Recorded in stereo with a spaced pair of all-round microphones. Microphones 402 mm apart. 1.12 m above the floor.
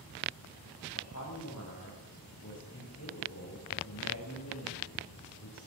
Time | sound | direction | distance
0.9 | a man speaking | 40° left (ahead or behind) | 6.5 m